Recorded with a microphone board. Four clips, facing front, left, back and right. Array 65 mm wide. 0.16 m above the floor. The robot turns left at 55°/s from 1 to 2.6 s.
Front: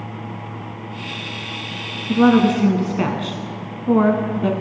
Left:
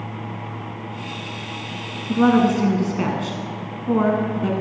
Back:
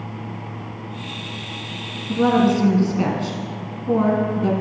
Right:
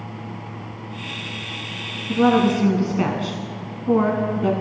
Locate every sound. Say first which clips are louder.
2.1 s a woman speaking: left 1 dB, front 3 dB; 20° left, 1.3 m; by 4.5 s 10° right, 1.3 m